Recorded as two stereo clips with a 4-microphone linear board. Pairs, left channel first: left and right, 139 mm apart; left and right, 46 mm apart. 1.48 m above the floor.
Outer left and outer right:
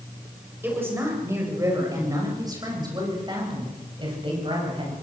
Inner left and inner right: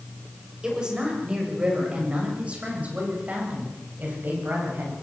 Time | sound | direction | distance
0.6 | a woman speaking | 15° right (ahead or behind) | 7.5 m